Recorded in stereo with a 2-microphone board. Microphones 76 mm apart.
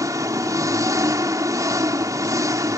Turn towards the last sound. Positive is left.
turn(degrees=-50)  # may be behind; listen again after turning